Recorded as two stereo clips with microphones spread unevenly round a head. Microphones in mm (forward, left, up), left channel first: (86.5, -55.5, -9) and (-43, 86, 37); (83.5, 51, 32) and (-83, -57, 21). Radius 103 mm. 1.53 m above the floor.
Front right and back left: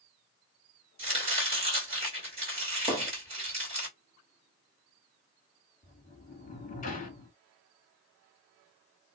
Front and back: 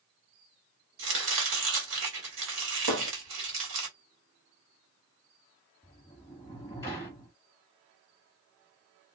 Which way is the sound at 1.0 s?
175° right.